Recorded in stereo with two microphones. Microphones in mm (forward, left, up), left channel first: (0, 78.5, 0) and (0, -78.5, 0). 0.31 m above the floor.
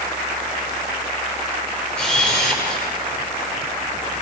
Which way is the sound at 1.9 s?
5° left (ahead or behind).